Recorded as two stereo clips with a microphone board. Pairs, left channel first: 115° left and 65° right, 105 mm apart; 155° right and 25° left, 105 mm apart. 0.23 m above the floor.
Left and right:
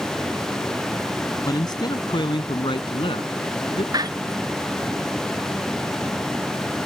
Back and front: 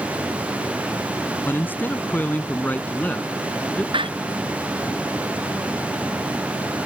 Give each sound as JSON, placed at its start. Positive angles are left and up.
{"t": 1.4, "sound": "a man speaking", "azimuth_deg": 140}
{"t": 3.9, "sound": "a door slam", "azimuth_deg": -15}